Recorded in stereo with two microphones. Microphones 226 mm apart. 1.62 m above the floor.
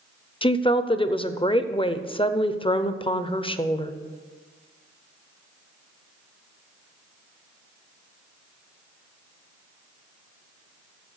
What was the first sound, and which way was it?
A woman speaking, 25° left (ahead or behind).